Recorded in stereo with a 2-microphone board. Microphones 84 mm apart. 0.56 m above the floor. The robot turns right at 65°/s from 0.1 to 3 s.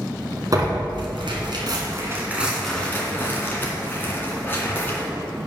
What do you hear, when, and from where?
0.5 s tearing paper: 45° right (ahead or behind), 1.8 m; by 5.1 s 25° left (ahead or behind), 1.8 m